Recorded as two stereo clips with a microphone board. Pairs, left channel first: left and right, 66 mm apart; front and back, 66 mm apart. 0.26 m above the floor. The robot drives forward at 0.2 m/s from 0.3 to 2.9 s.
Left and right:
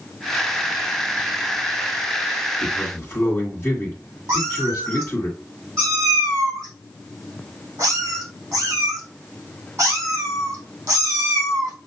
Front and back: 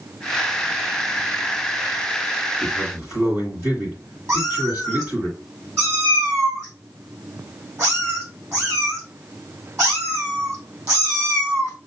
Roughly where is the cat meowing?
Behind right.